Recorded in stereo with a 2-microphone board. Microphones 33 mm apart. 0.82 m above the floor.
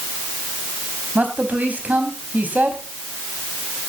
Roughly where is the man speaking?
Right.